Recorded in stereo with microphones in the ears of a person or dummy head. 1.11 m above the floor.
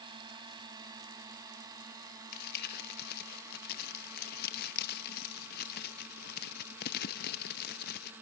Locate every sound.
0.0 s a drone: 25° right (ahead or behind); by 8.2 s 10° right (ahead or behind)
2.3 s crumpling: 55° left (ahead or behind)